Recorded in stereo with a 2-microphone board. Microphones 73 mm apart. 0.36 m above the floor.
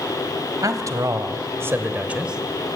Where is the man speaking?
55° right (ahead or behind), 2.5 m; by 2.8 s centre (ahead or behind), 2.5 m.